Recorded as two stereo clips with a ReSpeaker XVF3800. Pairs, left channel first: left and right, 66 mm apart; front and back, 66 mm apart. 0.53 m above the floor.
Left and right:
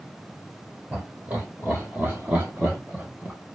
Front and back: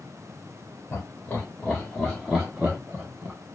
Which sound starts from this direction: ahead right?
Laughter, at 0.9 s.